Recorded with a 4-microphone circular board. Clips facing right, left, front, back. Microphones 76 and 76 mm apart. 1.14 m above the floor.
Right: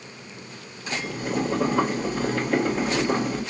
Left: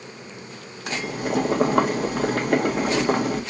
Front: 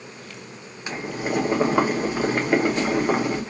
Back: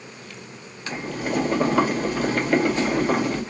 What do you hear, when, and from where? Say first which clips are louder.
0.9 s boiling: left 3 dB, even; 75° left, 1.1 m